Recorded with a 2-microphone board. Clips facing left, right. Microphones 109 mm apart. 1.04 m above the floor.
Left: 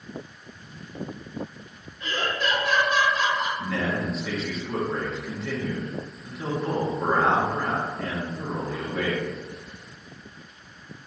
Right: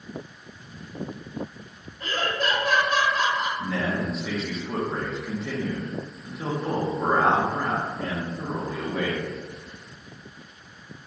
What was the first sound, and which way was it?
Laughter, 45° right (ahead or behind).